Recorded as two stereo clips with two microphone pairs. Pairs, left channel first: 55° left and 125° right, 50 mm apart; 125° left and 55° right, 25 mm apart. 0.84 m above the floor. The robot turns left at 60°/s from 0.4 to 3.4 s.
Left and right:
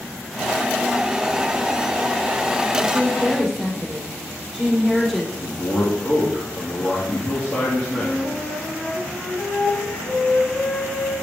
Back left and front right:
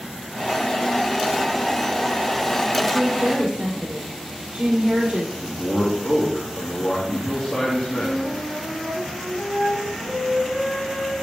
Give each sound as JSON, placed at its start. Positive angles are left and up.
{"t": 2.8, "sound": "a woman speaking", "azimuth_deg": 5, "distance_m": 2.0}
{"t": 5.4, "sound": "a man speaking", "azimuth_deg": 100, "distance_m": 1.6}
{"t": 7.9, "sound": "a flute", "azimuth_deg": 25, "distance_m": 2.5}